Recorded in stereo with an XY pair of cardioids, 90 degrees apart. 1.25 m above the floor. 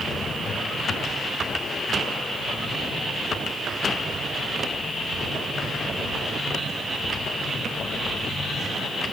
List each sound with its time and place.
Only background noise.